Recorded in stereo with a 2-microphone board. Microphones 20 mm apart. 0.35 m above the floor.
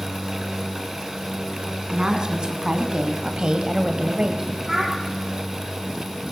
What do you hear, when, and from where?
1.9 s a woman speaking: 40° right (ahead or behind), 3.5 m; by 4.5 s 30° right (ahead or behind), 1.9 m
4.7 s a child speaking: 25° right (ahead or behind), 8 m